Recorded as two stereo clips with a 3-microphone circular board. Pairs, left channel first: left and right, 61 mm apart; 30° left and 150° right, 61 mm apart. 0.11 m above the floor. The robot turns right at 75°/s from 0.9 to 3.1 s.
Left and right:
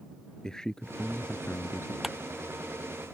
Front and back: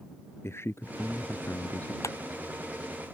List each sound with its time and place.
0.4 s a man speaking: 15° left; by 1.9 s 90° left
2.0 s a clap: 5° right; by 2.2 s 5° left